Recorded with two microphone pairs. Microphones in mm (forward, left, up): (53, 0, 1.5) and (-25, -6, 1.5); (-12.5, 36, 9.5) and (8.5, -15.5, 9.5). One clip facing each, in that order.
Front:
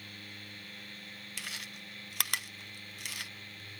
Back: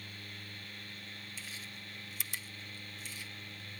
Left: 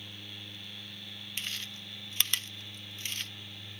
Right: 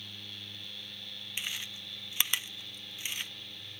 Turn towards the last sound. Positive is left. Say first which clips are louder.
# front 3 dB, right 1 dB
turn(degrees=10)